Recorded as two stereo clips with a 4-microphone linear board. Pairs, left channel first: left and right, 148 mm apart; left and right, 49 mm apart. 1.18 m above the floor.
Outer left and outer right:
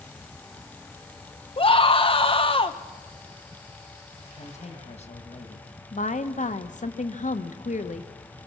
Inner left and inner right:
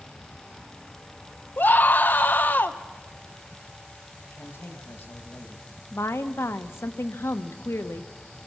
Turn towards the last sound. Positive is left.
turn(degrees=60)  # may be behind; listen again after turning